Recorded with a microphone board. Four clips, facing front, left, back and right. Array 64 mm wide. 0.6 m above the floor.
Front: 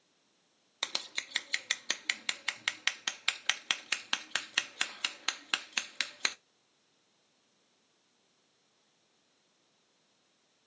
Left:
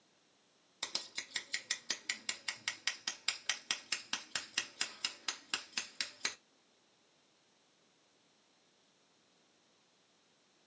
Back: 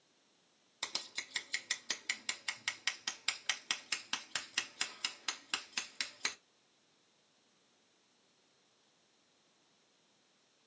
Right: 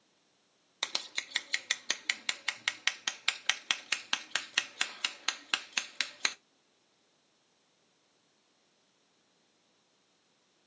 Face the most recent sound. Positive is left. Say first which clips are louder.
# right 7 dB, front 5 dB
turn(degrees=-45)